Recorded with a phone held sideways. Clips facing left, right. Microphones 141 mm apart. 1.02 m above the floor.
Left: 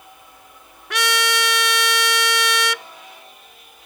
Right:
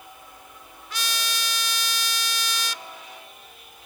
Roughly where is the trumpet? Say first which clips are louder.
Left 12 dB; left.